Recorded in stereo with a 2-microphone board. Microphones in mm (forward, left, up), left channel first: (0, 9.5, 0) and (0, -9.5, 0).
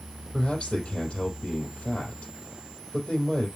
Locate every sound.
0.3 s a man speaking: 70° left (ahead or behind), 4 m